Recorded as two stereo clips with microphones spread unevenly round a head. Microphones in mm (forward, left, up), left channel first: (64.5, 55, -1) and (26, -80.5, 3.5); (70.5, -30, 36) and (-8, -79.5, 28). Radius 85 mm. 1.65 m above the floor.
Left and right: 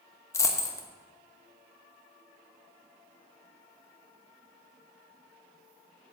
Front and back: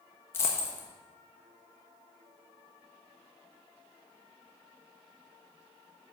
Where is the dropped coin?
30° left, 1.0 m.